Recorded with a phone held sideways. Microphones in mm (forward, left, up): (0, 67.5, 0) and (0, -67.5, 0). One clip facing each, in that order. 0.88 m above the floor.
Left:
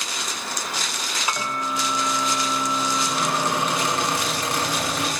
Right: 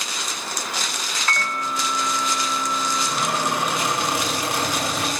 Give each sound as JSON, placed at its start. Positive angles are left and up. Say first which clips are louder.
{"t": 1.3, "sound": "a microwave", "louder": "even", "side_deg": 15, "distance_m": 0.6}
{"t": 3.1, "sound": "a squeak", "louder": "even", "side_deg": -10, "distance_m": 6.5}